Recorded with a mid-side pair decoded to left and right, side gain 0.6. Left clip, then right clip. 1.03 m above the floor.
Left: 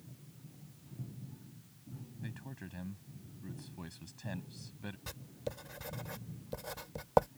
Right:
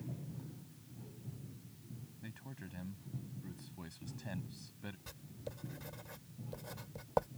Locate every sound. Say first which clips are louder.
2.2 s a man speaking: left 3 dB; 15° left
5.1 s writing: left 10 dB; 35° left